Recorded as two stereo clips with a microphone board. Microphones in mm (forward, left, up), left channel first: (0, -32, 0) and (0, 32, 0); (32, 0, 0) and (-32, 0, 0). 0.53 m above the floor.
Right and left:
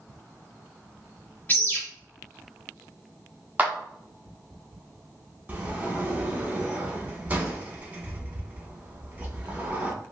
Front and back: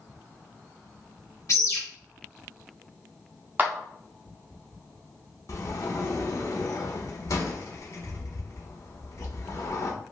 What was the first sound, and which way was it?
A bird, 30° right.